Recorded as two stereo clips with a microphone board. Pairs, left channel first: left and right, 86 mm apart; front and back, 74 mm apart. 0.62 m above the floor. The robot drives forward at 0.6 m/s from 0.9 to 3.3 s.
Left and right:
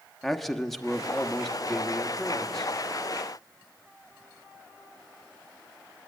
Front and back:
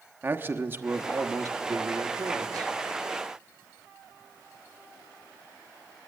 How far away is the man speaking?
About 0.9 m.